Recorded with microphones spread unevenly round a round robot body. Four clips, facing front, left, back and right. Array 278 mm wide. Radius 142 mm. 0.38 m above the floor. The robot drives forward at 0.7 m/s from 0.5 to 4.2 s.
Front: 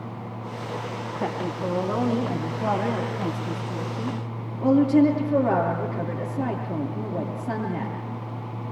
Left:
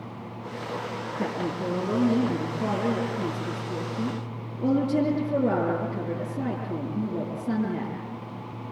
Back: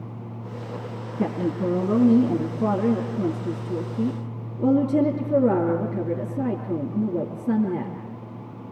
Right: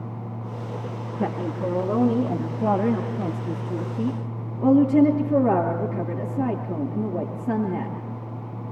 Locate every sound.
1.2 s a woman speaking: straight behind, 3.5 m